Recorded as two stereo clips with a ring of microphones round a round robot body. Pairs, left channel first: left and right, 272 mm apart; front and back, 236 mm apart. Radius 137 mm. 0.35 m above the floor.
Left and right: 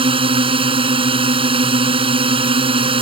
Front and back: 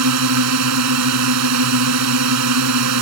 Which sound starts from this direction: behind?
A drone, at 0.0 s.